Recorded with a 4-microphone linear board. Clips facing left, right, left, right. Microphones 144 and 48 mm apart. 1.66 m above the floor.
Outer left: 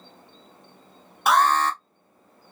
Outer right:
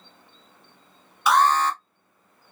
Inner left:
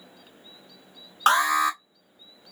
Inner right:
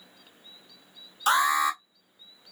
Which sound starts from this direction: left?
An alarm, at 1.3 s.